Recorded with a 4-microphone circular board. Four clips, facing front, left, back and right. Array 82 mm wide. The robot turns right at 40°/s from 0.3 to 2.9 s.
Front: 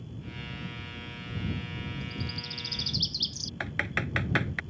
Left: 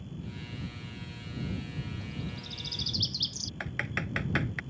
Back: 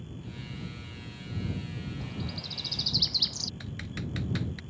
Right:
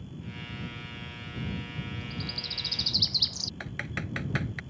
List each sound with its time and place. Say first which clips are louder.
2.0 s a bird: right 1 dB, even; straight behind; by 3.5 s 145° right
3.6 s typing on a keyboard: left 2 dB, front 8 dB; 10° left